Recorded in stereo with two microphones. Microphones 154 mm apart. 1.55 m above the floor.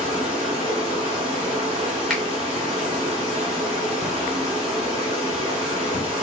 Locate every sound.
0.0 s running water: 45° right (ahead or behind), 3 m
2.1 s a finger snap: centre (ahead or behind), 2 m